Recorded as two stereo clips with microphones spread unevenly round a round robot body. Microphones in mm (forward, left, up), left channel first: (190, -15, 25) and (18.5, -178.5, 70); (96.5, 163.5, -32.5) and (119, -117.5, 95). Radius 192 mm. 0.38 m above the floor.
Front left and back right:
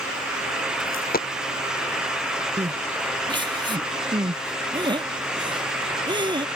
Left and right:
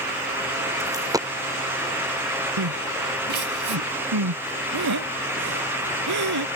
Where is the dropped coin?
10° right.